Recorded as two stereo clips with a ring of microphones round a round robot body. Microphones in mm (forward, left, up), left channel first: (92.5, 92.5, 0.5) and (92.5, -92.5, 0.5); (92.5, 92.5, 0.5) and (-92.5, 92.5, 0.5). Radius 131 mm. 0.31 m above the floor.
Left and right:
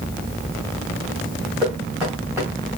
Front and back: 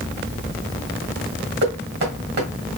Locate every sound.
1.6 s knocking: 170° right, 1.9 m